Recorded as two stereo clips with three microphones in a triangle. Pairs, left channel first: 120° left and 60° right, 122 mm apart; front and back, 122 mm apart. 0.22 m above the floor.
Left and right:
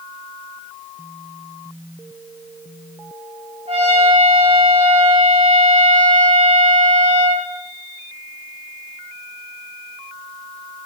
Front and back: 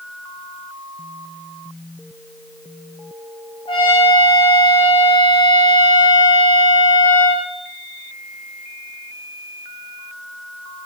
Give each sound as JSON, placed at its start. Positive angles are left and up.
{"t": 3.7, "sound": "a trumpet", "azimuth_deg": -35, "distance_m": 3.5}